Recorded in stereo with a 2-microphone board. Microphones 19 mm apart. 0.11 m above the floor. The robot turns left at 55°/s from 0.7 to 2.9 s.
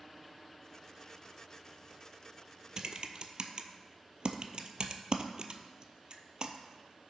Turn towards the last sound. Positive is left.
turn(degrees=-45)  # may be behind; listen again after turning